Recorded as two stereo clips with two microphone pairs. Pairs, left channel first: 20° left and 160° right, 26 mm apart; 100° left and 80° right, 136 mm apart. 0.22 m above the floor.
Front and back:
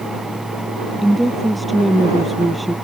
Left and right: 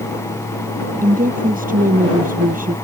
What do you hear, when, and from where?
1.0 s a woman speaking: 70° right